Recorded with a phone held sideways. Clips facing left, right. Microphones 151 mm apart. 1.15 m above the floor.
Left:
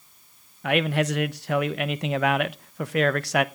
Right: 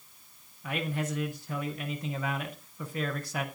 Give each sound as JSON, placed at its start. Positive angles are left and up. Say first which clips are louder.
{"t": 0.6, "sound": "a man speaking", "louder": "left 10 dB", "side_deg": 90, "distance_m": 0.6}